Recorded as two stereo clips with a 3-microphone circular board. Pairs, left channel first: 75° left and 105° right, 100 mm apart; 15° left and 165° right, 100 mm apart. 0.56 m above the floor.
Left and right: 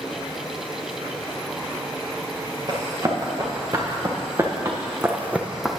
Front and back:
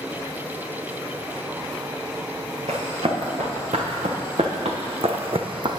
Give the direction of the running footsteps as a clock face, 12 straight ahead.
5 o'clock.